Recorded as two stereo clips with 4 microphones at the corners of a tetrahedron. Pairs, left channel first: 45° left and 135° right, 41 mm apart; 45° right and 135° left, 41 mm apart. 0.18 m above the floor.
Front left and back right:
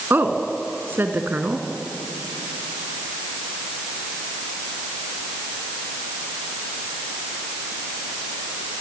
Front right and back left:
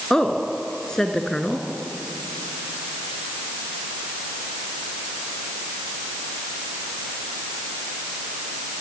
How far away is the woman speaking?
About 2.5 m.